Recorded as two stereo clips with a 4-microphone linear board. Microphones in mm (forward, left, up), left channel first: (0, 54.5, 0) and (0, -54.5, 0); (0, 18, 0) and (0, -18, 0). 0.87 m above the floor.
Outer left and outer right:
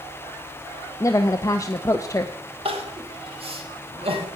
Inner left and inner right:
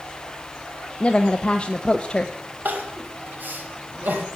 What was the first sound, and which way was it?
A woman speaking, 30° left (ahead or behind).